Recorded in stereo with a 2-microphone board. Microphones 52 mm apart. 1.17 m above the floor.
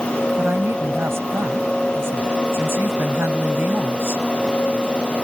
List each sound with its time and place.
0.4 s a woman speaking: 50° right (ahead or behind)